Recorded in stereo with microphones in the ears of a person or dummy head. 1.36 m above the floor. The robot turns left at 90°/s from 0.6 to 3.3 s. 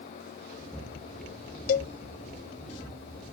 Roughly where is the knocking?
I don't hear knocking.